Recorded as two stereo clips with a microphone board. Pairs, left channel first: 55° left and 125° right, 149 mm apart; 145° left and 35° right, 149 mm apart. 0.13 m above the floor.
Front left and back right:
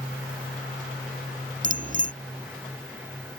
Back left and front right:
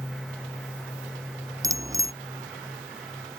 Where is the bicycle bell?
100° right.